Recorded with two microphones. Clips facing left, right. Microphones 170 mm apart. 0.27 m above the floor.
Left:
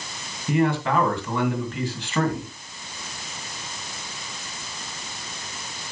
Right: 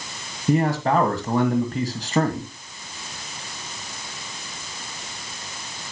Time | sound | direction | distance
0.5 | a man speaking | 40° right (ahead or behind) | 1.9 m